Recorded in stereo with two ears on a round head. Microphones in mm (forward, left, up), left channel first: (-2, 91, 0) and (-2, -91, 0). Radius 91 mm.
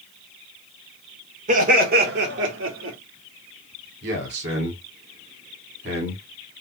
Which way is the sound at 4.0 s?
55° right (ahead or behind).